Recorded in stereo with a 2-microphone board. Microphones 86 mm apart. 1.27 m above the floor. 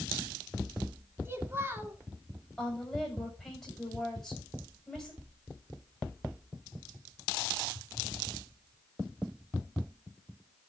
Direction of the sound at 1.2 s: 25° right (ahead or behind).